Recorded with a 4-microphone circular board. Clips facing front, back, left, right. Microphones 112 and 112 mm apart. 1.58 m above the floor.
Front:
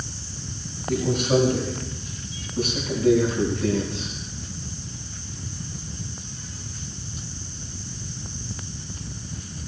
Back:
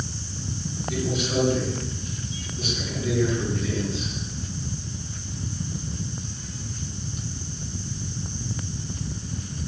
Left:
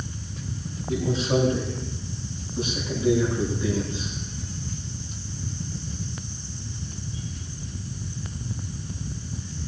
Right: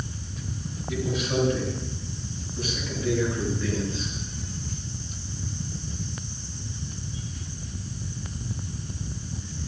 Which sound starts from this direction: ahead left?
A man speaking, at 0.9 s.